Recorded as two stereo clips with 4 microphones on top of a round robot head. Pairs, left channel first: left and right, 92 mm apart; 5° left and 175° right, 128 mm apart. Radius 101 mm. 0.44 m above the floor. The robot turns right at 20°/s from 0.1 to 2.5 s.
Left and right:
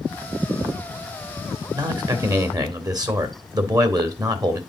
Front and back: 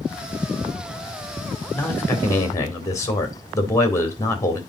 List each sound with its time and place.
1.7 s a man speaking: 70° right, 1.8 m; by 4.6 s 55° right, 1.8 m